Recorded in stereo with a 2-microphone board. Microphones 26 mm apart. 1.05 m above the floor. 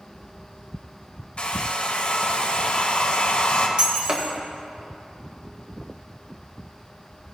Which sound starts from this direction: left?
A hair dryer, at 1.4 s.